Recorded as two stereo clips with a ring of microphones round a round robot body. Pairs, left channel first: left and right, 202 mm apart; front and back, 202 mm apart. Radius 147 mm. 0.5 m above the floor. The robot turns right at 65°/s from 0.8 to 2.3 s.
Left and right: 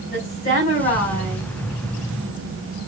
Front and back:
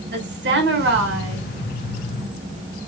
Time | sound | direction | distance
0.1 | a woman speaking | 150° left | 4.5 m